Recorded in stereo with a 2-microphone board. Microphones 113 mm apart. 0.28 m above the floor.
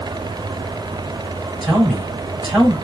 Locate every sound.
1.6 s a man speaking: centre (ahead or behind), 1.3 m